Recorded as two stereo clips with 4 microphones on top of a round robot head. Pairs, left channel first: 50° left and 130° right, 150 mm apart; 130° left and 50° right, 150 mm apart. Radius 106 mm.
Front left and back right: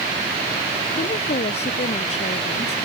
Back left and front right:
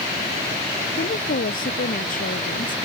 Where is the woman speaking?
100° left.